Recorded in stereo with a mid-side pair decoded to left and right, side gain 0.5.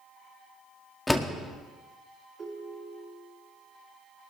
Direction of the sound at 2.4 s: 35° right.